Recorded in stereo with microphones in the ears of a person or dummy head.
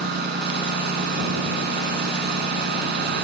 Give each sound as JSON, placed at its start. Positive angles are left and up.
{"t": 0.0, "sound": "a lawn mower", "side_deg": -70}